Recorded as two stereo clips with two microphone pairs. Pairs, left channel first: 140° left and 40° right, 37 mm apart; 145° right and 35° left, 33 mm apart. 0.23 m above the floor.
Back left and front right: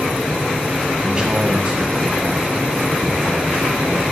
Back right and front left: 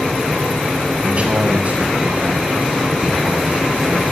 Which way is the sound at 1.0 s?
15° left.